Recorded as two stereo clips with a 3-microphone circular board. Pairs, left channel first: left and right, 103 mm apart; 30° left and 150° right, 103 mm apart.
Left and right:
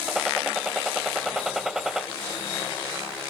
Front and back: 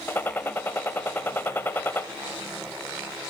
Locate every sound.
0.1 s a gunshot: 10° right, 0.7 m